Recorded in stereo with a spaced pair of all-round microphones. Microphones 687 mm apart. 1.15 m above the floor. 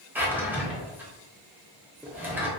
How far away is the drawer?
About 0.7 m.